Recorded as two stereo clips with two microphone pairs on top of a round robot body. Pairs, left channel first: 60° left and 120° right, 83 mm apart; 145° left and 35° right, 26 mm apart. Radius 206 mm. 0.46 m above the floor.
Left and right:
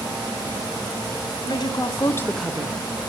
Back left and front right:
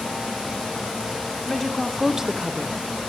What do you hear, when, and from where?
1.5 s a woman speaking: 65° left, 1.6 m; by 2.8 s 75° right, 1.1 m